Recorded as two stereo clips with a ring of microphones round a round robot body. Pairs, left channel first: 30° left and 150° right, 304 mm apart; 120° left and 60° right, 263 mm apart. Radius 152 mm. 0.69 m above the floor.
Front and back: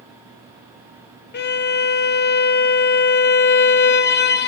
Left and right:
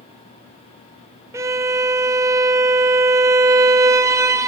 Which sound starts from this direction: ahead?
A violin, at 1.3 s.